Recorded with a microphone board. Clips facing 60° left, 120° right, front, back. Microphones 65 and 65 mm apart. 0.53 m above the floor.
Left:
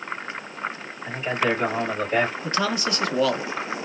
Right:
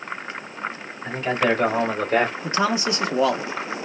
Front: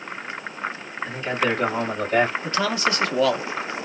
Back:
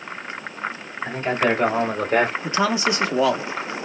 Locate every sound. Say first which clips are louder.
1.1 s a man speaking: right 3 dB, back 3 dB; 135° right, 2.5 m; by 2.3 s 155° right, 2 m
2.4 s a man speaking: right 3 dB, back 2 dB; 145° right, 0.7 m